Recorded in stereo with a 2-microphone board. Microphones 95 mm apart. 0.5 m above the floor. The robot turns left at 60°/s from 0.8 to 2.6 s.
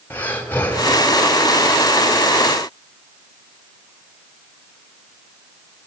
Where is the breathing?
20° left (ahead or behind), 2 m; by 1.0 s 30° left (ahead or behind), 2 m.